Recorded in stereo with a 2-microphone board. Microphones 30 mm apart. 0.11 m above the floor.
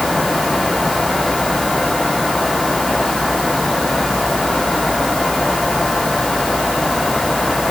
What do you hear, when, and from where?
Only background noise.